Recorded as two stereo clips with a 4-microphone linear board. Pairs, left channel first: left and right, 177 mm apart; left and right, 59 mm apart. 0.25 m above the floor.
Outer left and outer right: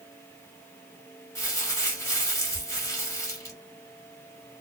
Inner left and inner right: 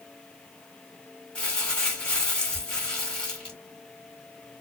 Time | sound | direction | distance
1.4 | crumpling | 15° left (ahead or behind) | 1.5 m